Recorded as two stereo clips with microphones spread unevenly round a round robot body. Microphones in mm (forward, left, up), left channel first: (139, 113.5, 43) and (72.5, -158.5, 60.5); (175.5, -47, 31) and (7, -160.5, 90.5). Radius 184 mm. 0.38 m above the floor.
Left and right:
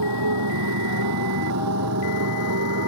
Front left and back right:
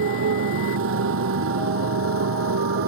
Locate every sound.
0.0 s a motorcycle: 145° right; by 2.9 s 155° right